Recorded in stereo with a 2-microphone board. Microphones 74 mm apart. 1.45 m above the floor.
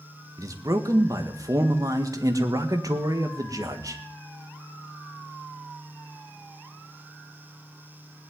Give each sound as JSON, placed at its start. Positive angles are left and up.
{"t": 0.4, "sound": "a man speaking", "side_deg": -50, "distance_m": 1.9}